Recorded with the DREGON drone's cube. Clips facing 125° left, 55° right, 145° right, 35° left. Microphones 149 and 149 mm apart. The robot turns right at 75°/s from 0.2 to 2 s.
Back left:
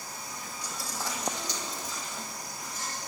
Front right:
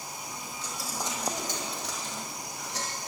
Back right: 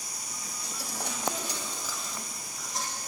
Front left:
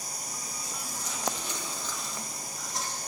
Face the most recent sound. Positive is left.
turn(degrees=-55)